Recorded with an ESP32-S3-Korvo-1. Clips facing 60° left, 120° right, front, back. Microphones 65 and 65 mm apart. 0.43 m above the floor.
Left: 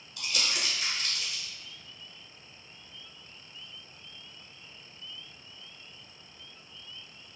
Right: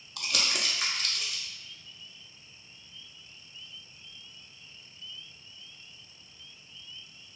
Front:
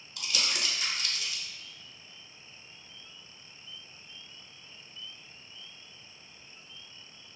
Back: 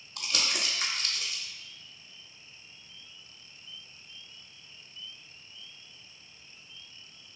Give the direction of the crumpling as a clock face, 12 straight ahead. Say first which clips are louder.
Right 1 dB, back 1 dB; 5 o'clock.